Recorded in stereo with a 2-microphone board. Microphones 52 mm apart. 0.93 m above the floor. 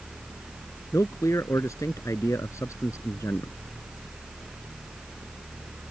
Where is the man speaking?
75° left (ahead or behind).